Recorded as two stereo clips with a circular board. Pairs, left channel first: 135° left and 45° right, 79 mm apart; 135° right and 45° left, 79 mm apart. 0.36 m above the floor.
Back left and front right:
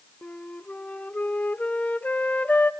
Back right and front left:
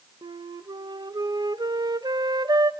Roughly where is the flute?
Ahead left.